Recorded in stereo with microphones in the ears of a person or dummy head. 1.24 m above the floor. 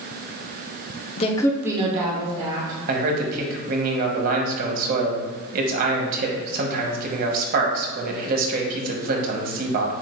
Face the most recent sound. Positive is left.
turn(degrees=-50)  # may be behind; listen again after turning